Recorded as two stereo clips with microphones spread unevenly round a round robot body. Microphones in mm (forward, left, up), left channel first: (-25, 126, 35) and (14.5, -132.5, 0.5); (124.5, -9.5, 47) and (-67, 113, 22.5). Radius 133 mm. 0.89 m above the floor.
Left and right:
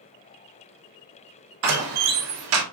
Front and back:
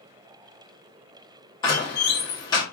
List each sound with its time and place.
1.6 s a door slam: 110° right, 1.0 m